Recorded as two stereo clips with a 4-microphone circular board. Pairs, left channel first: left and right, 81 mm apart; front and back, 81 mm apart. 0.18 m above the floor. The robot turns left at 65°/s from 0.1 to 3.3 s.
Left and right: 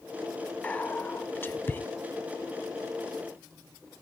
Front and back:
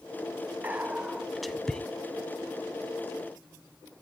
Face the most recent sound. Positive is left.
turn(degrees=-35)